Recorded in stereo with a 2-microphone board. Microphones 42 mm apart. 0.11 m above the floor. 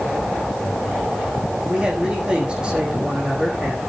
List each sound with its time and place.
1.7 s a man speaking: 20° right (ahead or behind), 5.5 m